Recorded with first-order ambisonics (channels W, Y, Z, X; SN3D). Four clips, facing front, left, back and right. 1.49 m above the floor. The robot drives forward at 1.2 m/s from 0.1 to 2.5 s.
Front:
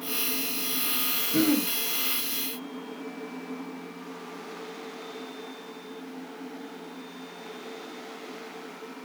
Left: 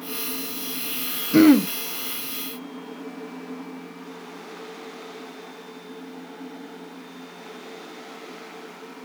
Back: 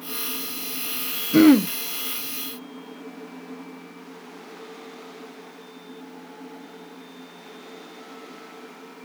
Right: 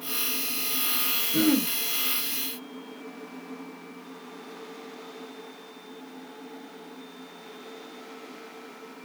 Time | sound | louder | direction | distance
1.3 | throat clearing | left 10 dB, back 11 dB | 125° left | 0.6 m